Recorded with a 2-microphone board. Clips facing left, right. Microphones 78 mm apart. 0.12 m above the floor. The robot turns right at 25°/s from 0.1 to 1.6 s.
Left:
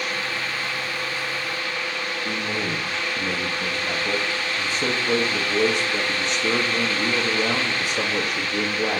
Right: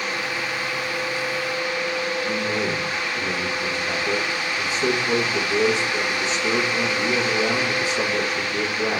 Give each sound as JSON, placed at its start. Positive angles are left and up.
{"t": 2.2, "sound": "a man speaking", "side_deg": 55, "distance_m": 4.5}